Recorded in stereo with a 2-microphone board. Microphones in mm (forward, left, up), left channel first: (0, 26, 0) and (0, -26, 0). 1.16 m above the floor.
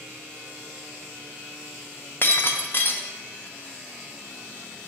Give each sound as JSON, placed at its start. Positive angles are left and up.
{"t": 2.2, "sound": "breaking glass", "side_deg": 45, "distance_m": 0.7}